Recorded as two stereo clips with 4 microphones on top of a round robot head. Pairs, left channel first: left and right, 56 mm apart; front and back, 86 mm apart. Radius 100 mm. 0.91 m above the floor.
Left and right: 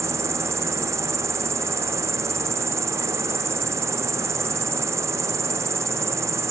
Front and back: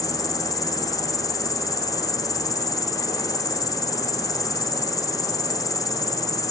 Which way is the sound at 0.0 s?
55° right.